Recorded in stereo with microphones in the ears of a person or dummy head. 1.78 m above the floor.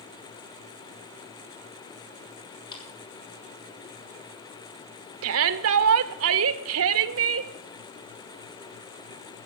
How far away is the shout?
About 1.0 m.